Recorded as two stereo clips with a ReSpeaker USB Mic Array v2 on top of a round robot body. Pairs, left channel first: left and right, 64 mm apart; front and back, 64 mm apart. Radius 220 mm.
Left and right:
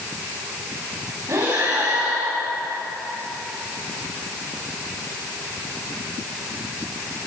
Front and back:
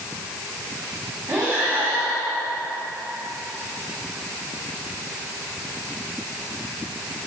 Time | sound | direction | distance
1.3 | breathing | 125° right | 4.5 m